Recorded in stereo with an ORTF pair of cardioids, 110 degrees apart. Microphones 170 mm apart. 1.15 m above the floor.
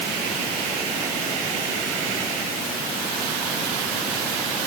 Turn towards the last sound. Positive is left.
No sound to turn to.